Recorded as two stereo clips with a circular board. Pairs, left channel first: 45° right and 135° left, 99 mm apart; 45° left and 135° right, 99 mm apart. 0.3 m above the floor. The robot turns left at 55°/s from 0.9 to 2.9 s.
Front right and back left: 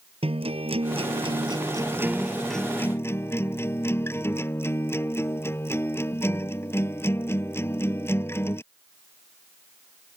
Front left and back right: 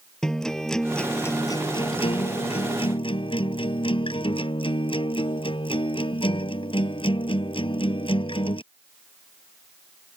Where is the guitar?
130° left; by 8.6 s 20° left.